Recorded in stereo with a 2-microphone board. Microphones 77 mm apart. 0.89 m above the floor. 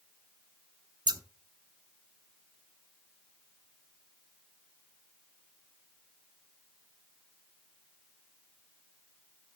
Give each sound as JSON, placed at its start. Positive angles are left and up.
{"t": 1.1, "sound": "scissors", "side_deg": -75, "distance_m": 0.7}